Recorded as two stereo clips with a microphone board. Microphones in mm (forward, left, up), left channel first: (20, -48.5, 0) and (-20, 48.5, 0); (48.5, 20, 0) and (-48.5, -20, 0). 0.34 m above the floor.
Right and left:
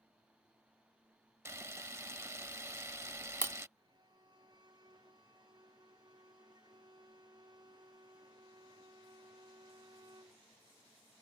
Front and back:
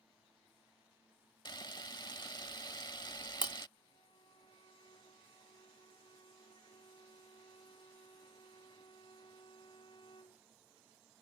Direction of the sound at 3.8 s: 65° left.